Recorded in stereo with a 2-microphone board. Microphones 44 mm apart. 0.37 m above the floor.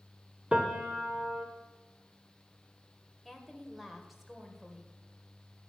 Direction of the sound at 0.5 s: 20° right (ahead or behind).